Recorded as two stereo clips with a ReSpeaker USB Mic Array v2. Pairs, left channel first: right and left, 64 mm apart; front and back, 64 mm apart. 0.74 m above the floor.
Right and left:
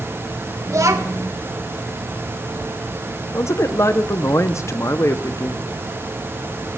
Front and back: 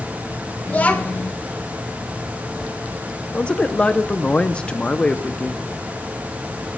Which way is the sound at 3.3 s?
70° right.